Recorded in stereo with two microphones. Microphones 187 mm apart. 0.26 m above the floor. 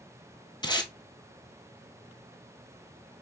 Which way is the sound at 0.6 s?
25° left (ahead or behind).